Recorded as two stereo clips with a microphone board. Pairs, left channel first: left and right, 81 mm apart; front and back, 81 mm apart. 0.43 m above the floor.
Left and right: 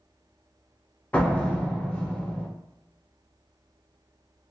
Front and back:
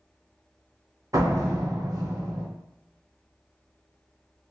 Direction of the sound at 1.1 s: 155° left.